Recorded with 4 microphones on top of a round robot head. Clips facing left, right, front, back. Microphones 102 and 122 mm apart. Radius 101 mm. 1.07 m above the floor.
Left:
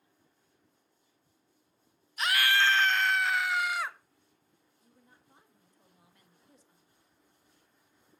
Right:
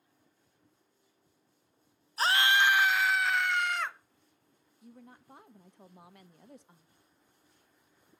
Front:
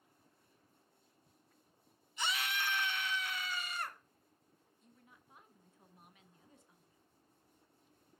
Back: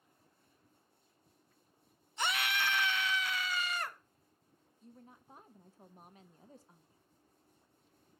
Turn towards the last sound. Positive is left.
turn(degrees=-120)